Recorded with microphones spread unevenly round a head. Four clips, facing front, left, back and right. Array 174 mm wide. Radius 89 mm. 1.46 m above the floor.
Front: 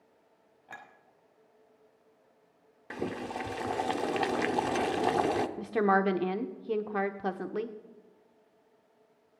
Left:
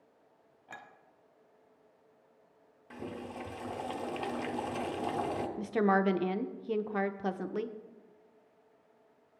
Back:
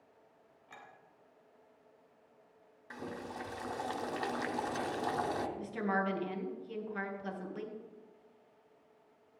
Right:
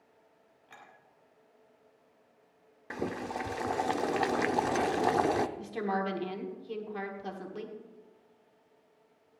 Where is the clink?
50° left, 1.8 m.